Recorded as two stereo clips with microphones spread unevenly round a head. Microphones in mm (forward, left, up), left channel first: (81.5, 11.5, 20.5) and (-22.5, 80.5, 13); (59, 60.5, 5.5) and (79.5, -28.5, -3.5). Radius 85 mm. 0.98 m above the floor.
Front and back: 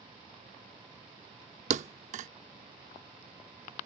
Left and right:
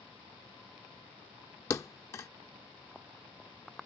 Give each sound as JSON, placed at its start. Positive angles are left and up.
{"t": 1.7, "sound": "a thud", "azimuth_deg": 160}